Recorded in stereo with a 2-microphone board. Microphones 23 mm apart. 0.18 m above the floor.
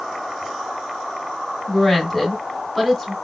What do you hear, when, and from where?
1.7 s a woman speaking: 5° left (ahead or behind), 1.8 m